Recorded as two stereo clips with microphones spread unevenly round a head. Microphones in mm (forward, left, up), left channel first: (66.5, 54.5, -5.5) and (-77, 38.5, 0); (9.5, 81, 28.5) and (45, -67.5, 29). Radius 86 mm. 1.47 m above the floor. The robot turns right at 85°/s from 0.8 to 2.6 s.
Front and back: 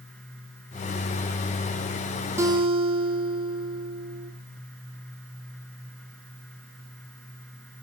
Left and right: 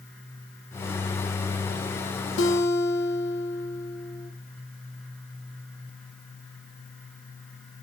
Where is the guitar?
115° left, 1.2 m; by 4.3 s 135° left, 1.2 m.